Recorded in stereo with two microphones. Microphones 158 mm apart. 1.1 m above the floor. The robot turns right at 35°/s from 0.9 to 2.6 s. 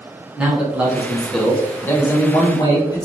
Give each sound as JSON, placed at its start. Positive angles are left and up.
{"t": 0.4, "sound": "a man speaking", "azimuth_deg": -10, "distance_m": 0.7}